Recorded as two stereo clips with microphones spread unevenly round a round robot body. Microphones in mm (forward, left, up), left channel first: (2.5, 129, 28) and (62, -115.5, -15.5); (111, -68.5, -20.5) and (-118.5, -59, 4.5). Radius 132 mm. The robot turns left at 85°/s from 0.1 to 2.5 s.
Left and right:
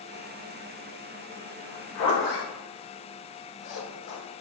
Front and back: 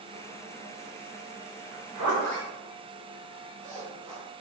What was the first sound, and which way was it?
A zipper, 160° left.